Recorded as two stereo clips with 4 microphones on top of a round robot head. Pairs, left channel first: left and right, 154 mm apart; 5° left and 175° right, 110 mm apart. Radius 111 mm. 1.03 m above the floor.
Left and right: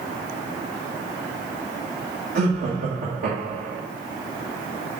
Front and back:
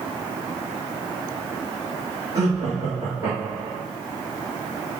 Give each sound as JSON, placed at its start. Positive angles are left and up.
{"t": 2.4, "sound": "laughter", "azimuth_deg": -115, "distance_m": 1.6}